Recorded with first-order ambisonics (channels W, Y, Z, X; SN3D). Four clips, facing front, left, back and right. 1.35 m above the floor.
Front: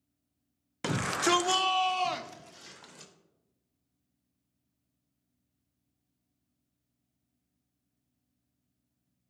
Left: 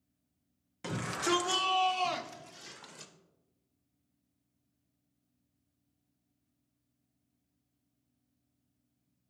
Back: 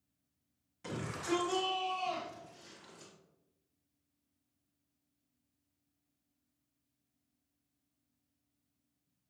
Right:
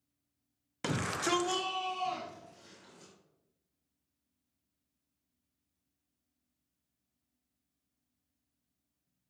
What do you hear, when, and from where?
0.8 s a shout: 30° right, 0.5 m; by 3.1 s 50° left, 1.3 m